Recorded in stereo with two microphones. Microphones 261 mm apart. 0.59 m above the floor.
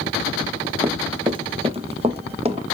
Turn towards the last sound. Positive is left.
turn(degrees=-25)  # may be behind; listen again after turning